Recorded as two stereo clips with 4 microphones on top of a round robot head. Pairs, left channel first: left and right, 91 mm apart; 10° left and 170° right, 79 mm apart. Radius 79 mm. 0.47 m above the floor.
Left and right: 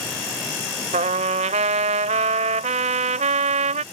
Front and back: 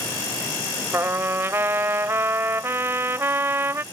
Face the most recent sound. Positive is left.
turn(degrees=-100)